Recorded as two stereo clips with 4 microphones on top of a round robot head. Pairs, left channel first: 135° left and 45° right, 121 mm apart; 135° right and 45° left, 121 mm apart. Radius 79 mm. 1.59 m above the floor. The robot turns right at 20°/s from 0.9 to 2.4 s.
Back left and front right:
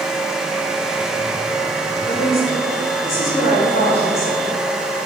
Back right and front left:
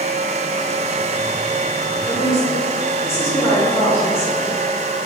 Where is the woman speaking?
175° left, 2.5 m; by 4.6 s straight behind, 2.5 m.